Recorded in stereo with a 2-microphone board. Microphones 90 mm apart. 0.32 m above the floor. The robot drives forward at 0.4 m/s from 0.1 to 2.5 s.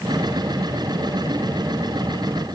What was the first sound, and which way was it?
Only background noise.